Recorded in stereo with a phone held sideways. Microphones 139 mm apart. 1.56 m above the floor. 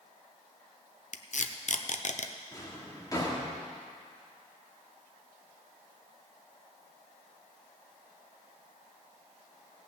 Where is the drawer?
25° left (ahead or behind), 2 m.